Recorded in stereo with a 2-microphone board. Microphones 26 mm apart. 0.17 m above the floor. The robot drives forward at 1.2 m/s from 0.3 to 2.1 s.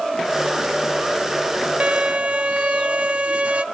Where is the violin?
45° right (ahead or behind), 0.6 m.